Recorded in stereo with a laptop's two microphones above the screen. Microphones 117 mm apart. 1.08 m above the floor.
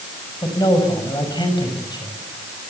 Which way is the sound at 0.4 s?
35° left (ahead or behind).